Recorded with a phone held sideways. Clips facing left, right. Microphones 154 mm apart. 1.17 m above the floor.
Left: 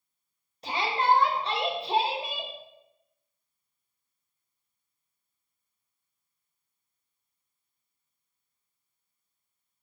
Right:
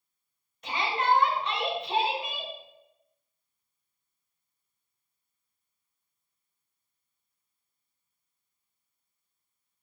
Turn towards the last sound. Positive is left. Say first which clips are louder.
# left 2 dB
turn(degrees=35)  # may be behind; listen again after turning